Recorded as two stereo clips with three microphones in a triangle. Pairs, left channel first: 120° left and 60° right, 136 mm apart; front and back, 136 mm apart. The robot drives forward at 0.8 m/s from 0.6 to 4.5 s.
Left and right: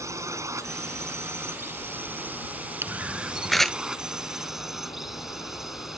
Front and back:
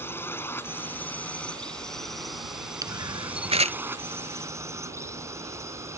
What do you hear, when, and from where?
0.0 s a drone: 45° right; by 6.0 s 145° right
2.8 s a camera shutter: 125° right; by 3.8 s 155° right